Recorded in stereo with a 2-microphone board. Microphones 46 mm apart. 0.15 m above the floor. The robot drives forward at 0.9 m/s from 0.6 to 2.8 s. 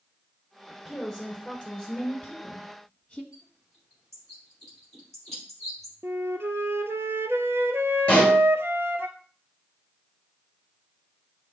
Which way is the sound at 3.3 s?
5° left (ahead or behind).